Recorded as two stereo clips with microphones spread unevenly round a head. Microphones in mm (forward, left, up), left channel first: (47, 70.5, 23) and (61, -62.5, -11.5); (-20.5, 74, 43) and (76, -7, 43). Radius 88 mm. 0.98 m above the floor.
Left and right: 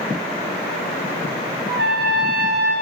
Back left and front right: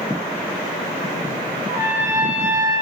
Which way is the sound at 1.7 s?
115° right.